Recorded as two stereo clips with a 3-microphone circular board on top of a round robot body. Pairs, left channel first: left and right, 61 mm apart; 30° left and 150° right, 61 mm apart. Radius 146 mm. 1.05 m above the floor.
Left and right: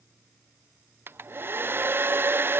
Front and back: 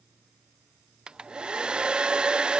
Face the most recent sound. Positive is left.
turn(degrees=-85)